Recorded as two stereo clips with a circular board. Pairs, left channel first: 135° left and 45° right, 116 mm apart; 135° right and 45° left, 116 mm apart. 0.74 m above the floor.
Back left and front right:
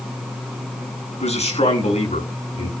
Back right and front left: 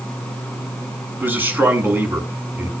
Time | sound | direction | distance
1.2 | a man speaking | 120° left | 7.5 m